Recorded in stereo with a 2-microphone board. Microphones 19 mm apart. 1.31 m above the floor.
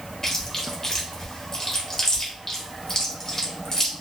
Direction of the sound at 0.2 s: 30° left (ahead or behind).